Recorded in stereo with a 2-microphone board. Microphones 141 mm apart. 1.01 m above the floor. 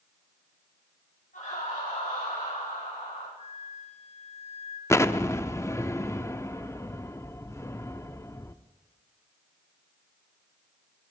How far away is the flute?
About 1.4 m.